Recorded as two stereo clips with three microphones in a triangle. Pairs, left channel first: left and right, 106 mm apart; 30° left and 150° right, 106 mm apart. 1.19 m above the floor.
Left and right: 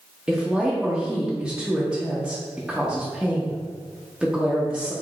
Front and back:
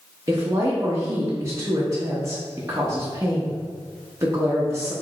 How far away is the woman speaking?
About 0.6 m.